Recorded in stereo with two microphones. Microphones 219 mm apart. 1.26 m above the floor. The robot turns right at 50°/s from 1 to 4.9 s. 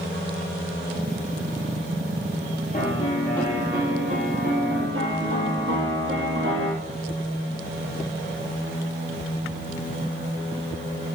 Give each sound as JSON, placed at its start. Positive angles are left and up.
{"t": 2.7, "sound": "a piano", "azimuth_deg": 140, "distance_m": 6.0}